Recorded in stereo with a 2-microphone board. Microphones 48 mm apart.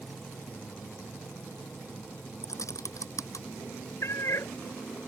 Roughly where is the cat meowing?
Left.